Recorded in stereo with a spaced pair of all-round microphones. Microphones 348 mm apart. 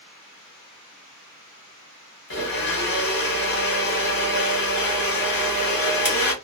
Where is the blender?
75° left (ahead or behind), 0.9 m.